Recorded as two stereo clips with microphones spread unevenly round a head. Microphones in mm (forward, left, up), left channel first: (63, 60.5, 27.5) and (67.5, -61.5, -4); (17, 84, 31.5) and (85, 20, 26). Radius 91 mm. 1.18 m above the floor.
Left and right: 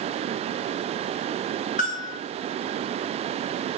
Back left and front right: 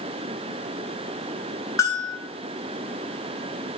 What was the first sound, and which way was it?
A bell, 80° left.